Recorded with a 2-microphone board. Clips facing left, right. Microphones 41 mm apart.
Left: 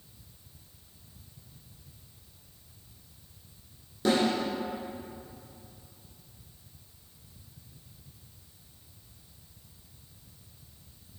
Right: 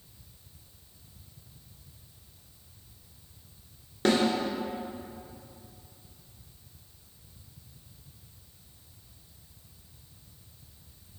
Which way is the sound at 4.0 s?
55° right (ahead or behind).